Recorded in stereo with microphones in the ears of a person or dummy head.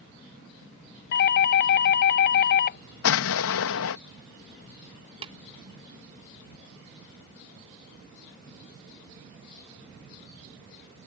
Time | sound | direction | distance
1.1 | a doorbell | 45° left (ahead or behind) | ?
3.0 | an explosion | 75° left (ahead or behind) | ?
5.2 | tapping | 25° right (ahead or behind) | ?